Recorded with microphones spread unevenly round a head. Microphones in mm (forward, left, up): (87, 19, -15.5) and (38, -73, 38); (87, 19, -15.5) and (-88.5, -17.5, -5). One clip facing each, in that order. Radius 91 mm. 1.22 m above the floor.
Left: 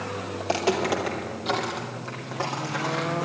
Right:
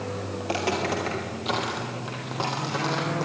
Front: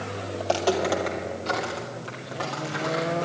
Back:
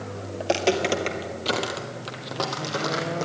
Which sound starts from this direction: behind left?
Footsteps, at 0.4 s.